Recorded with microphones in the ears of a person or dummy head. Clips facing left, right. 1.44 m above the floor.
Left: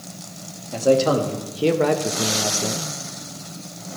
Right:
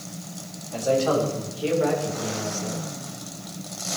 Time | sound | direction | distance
0.7 | a man speaking | 50° left (ahead or behind) | 2.5 m